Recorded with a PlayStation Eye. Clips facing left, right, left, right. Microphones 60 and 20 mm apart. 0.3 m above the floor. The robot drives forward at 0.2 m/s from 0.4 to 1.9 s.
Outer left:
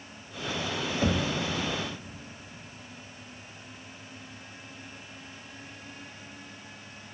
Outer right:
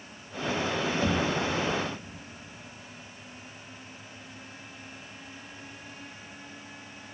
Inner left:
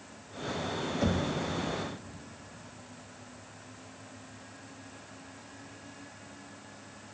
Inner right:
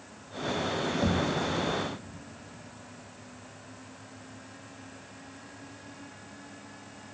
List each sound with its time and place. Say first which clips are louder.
1.0 s knocking: outer left 1 dB, inner right 1 dB; 20° left (ahead or behind), 0.6 m